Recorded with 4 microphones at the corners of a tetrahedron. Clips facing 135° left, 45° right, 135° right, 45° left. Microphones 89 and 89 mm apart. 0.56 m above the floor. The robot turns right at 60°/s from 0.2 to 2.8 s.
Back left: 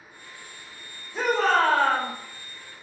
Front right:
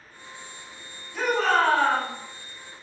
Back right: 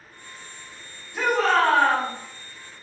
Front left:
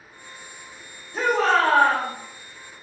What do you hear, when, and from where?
1.1 s a shout: 75° left, 1.6 m; by 2.1 s 135° left, 1.6 m